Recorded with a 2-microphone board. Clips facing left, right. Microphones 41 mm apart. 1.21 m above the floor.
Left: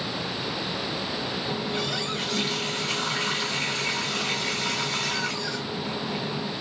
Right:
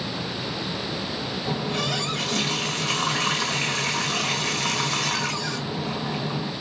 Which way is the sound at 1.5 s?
80° right.